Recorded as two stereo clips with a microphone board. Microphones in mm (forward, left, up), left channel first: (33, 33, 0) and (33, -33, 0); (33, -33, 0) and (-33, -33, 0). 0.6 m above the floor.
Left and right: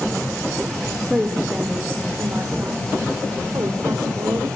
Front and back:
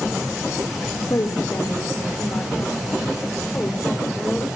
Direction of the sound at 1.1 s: 20° right.